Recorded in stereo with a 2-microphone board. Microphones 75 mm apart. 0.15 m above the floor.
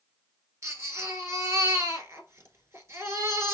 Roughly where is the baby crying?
Right.